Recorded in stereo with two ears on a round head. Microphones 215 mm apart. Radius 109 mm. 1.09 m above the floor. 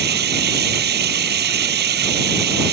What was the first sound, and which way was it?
Running water, 45° right (ahead or behind).